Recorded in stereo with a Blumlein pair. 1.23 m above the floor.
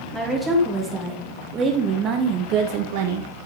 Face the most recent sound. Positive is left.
turn(degrees=-65)